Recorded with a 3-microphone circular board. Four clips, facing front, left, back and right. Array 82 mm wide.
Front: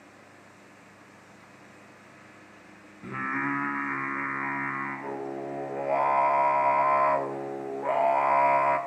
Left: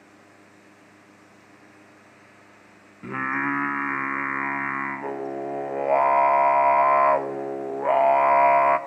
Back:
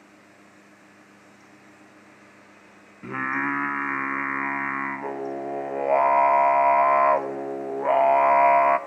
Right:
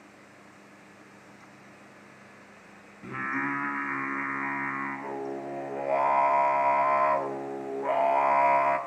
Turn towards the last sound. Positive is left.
turn(degrees=135)